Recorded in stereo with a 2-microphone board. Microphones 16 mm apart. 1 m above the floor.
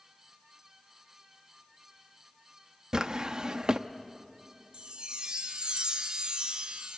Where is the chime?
60° right (ahead or behind), 1.2 m.